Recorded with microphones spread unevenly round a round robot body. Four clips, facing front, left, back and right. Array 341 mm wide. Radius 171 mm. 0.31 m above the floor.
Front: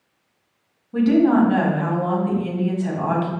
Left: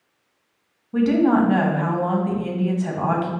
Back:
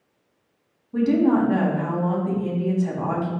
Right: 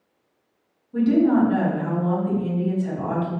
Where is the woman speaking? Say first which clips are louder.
Left 1 dB, front 3 dB; 65° left, 1.9 m.